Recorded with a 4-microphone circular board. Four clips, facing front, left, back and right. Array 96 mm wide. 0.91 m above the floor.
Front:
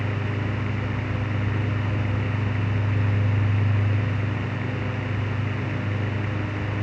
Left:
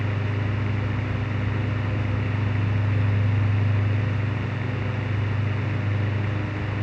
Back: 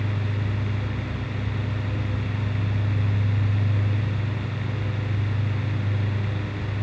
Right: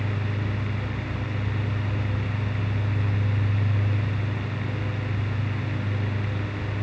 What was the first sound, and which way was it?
Only background noise.